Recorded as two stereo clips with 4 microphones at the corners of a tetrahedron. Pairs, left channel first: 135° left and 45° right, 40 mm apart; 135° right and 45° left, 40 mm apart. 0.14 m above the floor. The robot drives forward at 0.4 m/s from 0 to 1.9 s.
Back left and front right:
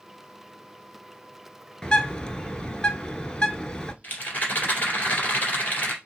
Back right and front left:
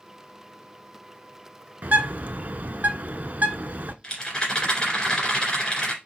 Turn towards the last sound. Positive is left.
turn(degrees=170)